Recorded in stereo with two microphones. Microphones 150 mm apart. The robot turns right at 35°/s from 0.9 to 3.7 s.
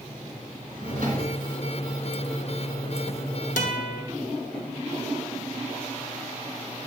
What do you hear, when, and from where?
0.7 s a drawer: 85° right, 2.5 m; by 1.4 s 70° right (ahead or behind), 2.5 m
3.6 s a guitar: 65° left (ahead or behind), 0.7 m; by 4.0 s 60° left (ahead or behind), 0.7 m